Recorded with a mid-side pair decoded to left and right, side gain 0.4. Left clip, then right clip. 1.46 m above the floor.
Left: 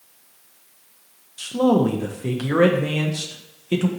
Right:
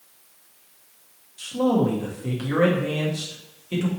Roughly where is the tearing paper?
I don't hear tearing paper.